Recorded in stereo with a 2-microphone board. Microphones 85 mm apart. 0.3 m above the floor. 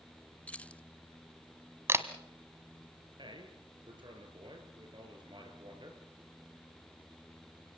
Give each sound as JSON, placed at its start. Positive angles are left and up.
{"t": 0.5, "sound": "keys jangling", "side_deg": 15, "distance_m": 0.7}
{"t": 1.9, "sound": "a camera shutter", "side_deg": -30, "distance_m": 1.4}
{"t": 3.2, "sound": "a man speaking", "side_deg": -60, "distance_m": 5.0}